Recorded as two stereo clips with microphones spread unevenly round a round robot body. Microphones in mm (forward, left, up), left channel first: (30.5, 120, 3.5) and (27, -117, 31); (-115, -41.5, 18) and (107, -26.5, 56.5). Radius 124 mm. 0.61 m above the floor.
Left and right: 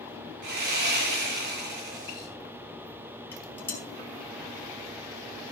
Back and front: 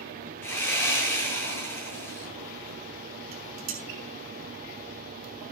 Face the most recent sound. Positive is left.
turn(degrees=10)